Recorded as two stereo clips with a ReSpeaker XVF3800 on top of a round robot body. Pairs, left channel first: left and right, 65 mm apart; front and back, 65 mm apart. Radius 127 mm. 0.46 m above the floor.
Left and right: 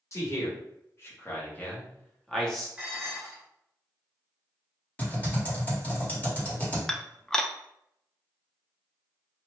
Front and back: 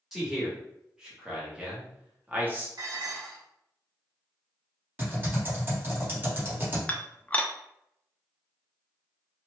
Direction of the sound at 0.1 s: 100° left.